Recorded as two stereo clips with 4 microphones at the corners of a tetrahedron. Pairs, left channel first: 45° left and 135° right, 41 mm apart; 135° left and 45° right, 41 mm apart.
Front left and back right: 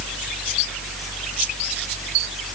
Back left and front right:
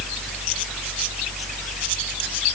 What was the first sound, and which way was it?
Only background noise.